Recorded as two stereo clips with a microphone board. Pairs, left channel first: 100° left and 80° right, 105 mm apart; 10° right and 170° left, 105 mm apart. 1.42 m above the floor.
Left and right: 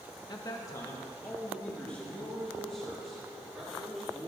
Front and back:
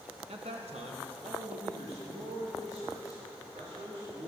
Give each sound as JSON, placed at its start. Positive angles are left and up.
{"t": 0.3, "sound": "a man speaking", "azimuth_deg": 150, "distance_m": 1.4}